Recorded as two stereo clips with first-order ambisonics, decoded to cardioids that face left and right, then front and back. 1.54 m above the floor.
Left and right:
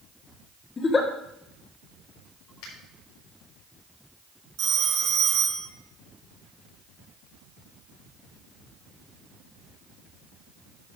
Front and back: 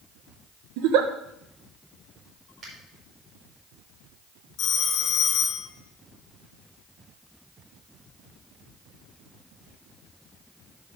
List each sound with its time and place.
0.8 s a giggle: 160° left, 1.3 m
2.6 s a finger snap: 115° left, 6 m
4.6 s a phone ringing: 45° right, 2 m